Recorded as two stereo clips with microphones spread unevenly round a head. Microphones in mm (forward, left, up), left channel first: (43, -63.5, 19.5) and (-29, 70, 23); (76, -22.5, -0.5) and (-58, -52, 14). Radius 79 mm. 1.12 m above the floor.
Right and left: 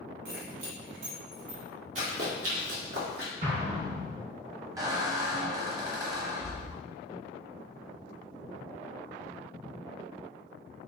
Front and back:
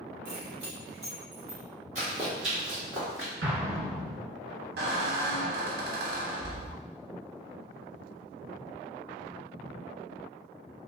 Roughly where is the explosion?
Behind.